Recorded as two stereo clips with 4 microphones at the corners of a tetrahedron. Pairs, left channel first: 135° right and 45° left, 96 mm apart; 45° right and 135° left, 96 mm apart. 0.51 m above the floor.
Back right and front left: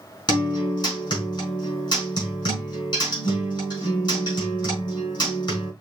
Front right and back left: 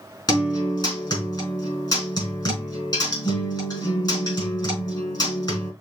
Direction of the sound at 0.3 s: 90° right.